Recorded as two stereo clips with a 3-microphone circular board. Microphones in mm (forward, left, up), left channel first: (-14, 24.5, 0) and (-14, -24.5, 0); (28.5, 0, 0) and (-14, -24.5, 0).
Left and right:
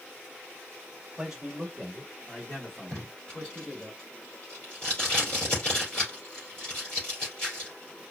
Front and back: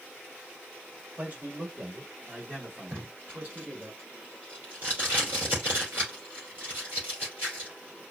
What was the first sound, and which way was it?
A man speaking, 155° right.